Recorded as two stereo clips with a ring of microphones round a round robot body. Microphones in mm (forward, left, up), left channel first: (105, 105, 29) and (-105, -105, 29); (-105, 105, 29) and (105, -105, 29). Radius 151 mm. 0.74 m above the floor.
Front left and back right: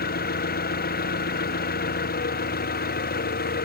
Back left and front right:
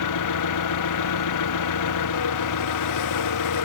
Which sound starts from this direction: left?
An engine running, at 0.0 s.